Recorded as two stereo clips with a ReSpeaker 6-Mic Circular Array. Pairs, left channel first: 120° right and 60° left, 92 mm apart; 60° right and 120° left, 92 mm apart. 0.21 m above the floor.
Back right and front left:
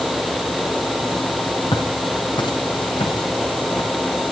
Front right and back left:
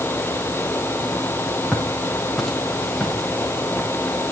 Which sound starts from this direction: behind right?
Footsteps, at 1.7 s.